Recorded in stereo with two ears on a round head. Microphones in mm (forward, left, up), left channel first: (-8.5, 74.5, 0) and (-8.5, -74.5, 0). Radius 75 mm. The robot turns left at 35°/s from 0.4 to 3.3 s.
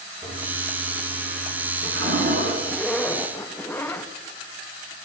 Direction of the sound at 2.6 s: Centre (ahead or behind).